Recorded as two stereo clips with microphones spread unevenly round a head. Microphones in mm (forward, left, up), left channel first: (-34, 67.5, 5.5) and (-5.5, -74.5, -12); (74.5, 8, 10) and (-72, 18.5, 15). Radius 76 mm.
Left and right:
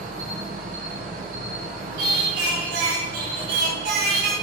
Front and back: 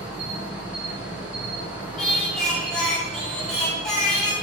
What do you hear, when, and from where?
0.0 s an insect: 105° right, 2.5 m
2.0 s singing: 90° right, 3 m